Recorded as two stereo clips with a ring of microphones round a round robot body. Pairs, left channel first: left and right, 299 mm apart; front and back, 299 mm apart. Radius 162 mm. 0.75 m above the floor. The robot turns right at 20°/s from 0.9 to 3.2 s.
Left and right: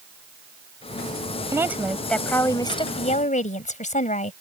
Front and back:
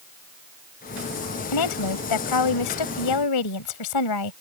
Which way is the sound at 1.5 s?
10° right.